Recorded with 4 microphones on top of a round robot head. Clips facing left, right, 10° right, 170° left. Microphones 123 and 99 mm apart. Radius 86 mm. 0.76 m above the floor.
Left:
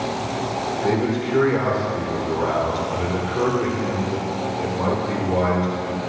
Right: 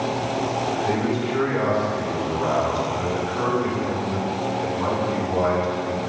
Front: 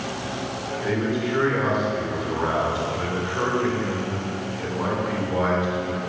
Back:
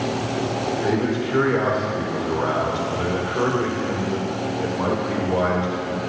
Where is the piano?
No piano in this recording.